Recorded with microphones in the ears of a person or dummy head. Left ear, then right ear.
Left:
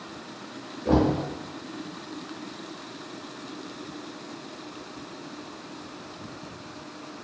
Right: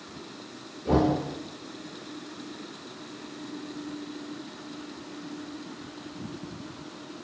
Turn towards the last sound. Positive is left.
turn(degrees=40)  # may be behind; listen again after turning